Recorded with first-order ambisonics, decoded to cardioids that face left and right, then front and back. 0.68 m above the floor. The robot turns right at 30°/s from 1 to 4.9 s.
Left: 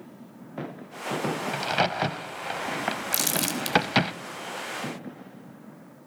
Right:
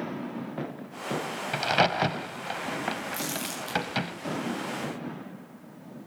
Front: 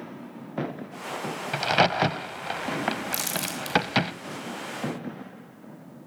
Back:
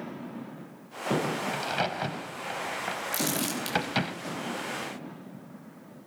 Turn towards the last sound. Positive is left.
turn(degrees=125)